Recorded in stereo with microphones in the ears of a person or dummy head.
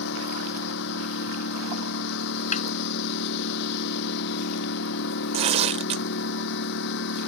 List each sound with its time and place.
0.0 s a lawn mower: 65° left (ahead or behind)
2.5 s a snare drum: 40° left (ahead or behind)
5.3 s tearing paper: 30° right (ahead or behind)